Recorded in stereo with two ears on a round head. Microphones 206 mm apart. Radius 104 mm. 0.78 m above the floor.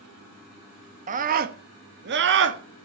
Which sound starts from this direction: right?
A scream, at 1.1 s.